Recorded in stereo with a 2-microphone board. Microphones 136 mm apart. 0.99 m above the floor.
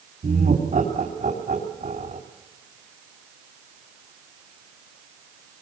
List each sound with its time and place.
0.2 s laughter: 75° right (ahead or behind), 3 m